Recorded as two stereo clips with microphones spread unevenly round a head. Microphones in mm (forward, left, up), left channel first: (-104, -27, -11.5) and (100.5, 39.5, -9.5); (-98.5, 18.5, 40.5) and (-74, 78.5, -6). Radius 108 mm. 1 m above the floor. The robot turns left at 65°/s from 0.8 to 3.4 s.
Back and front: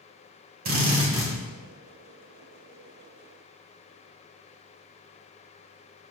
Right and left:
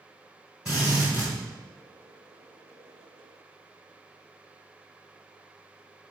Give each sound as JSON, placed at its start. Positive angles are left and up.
{"t": 0.7, "sound": "a drill", "azimuth_deg": -30, "distance_m": 1.6}